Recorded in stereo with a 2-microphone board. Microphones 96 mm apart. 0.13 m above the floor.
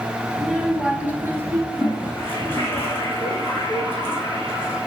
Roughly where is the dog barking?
No dog barking in this recording.